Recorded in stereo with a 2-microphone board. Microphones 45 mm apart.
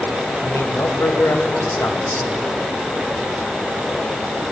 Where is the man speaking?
80° left, 3.5 m; by 2.5 s 75° left (ahead or behind), 3.5 m.